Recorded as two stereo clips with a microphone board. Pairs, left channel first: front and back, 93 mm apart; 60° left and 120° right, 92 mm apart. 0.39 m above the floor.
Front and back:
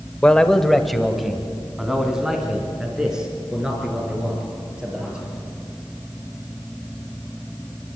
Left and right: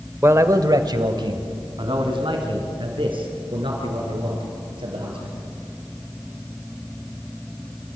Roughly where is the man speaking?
Right.